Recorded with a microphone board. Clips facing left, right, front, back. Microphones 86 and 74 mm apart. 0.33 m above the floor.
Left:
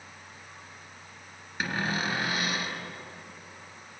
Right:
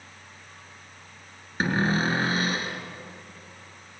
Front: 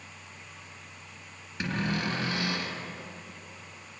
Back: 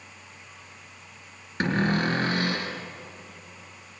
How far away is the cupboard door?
About 2.5 m.